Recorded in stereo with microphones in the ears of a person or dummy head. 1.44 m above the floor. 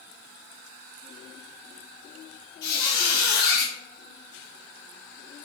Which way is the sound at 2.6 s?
55° left (ahead or behind).